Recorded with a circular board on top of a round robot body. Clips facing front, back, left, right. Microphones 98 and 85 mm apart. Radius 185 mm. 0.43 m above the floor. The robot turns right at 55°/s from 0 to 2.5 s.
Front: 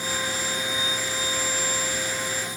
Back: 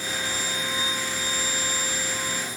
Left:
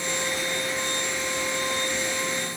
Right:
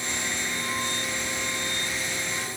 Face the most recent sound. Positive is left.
No sound to turn to.